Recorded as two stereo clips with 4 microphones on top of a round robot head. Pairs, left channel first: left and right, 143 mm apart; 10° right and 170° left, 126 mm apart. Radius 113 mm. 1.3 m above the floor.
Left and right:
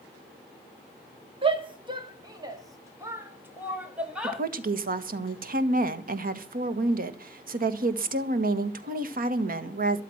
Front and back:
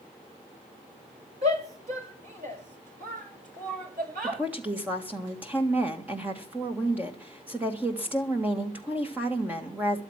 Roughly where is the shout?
Behind right.